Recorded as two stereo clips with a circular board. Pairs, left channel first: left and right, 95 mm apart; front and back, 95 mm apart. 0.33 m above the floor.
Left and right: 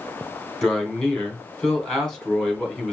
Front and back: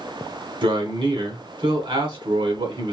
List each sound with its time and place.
0.6 s a man speaking: 175° left, 2.5 m